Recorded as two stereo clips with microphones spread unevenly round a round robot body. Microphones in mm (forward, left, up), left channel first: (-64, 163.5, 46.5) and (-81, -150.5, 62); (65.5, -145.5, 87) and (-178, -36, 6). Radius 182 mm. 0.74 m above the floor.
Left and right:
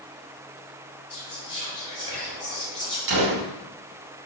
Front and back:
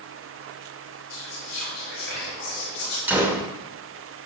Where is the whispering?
20° right, 4 m.